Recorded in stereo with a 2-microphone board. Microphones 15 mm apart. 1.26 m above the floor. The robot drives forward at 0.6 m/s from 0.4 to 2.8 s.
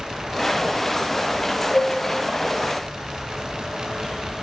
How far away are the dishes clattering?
About 7.5 m.